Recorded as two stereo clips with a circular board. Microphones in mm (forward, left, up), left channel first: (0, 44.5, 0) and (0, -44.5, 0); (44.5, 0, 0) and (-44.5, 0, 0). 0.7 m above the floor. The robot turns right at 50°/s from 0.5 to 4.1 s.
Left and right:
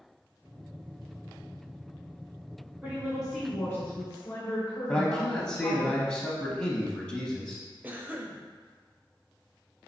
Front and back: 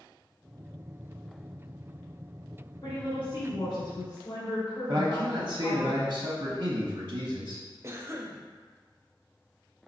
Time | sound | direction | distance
2.8 | a woman speaking | 20° right | 1.6 m
4.9 | a man speaking | 160° left | 0.7 m
7.8 | a cough | 145° right | 0.6 m